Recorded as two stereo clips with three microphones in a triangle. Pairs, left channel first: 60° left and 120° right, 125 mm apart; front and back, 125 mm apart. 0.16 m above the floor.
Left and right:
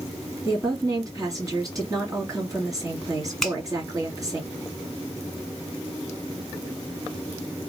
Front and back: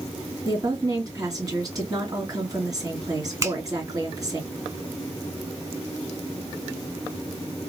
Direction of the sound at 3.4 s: 145° left.